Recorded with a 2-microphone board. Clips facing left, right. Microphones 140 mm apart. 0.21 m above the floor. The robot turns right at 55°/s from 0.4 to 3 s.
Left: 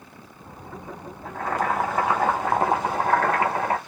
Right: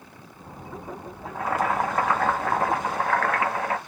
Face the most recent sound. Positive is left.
turn(degrees=70)